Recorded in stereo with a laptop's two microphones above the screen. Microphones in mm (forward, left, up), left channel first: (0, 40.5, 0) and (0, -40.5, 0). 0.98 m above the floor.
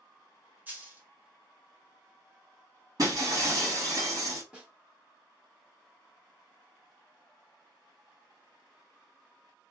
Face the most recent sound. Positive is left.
turn(degrees=-15)  # may be behind; listen again after turning